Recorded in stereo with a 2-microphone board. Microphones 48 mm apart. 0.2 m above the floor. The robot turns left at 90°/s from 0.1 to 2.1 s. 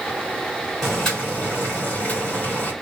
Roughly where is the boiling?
Behind.